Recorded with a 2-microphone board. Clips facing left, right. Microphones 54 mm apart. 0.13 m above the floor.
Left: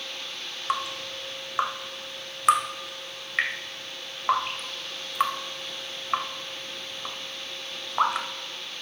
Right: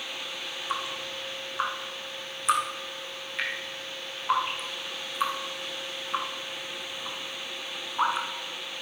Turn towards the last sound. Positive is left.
turn(degrees=80)